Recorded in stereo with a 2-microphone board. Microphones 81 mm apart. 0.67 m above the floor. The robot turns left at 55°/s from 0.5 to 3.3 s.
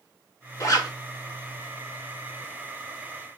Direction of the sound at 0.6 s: 40° left (ahead or behind).